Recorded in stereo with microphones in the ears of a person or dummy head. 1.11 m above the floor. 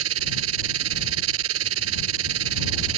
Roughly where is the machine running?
Right.